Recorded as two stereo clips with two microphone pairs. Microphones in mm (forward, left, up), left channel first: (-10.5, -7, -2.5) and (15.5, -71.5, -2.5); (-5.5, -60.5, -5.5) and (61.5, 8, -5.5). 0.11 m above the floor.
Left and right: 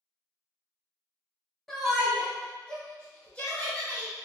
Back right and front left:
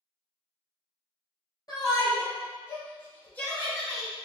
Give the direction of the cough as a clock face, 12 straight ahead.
I don't hear a cough.